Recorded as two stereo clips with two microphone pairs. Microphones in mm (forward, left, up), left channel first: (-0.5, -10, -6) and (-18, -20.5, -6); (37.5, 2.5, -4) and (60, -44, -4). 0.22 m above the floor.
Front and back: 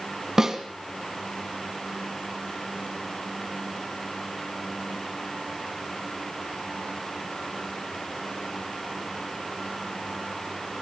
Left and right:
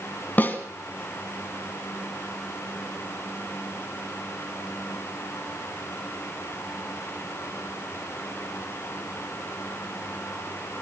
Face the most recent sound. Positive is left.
turn(degrees=155)